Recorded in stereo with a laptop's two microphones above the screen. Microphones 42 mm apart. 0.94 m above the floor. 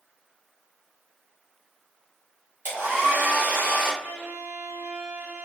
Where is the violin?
80° right, 1.8 m.